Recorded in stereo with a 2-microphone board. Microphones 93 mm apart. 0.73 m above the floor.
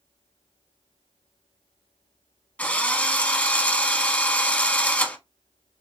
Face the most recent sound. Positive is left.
turn(degrees=15)  # may be behind; listen again after turning